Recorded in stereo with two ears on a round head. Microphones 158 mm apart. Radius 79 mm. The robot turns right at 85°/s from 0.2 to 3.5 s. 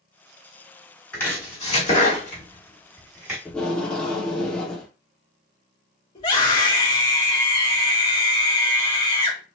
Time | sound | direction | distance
1.1 | chopping | 10° left (ahead or behind) | 1.7 m
3.5 | tape being pulled | 10° left (ahead or behind) | 1.4 m
6.2 | a scream | 35° left (ahead or behind) | 2.5 m